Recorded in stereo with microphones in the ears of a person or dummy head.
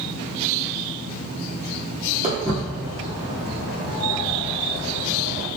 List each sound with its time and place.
2.2 s footsteps: 5° right (ahead or behind), 1.2 m; by 5.5 s 50° left (ahead or behind), 2 m